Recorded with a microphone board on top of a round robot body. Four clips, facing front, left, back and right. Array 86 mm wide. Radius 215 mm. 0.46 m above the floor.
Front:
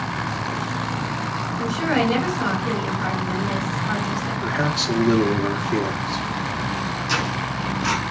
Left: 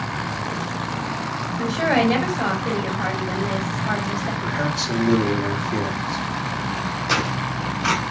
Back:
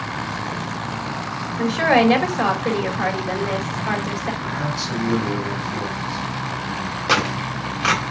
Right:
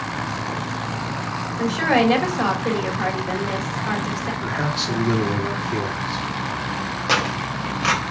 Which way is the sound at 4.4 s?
20° right.